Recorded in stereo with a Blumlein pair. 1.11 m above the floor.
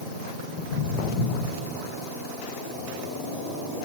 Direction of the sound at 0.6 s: 40° left.